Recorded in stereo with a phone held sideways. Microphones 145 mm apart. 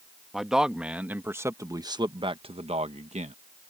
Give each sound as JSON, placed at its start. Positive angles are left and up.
{"t": 0.3, "sound": "a man speaking", "side_deg": 0}